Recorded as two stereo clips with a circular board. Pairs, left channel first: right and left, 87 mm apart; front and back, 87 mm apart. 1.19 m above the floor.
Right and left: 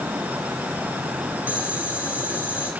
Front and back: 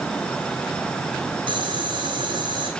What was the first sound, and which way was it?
Boiling, 160° left.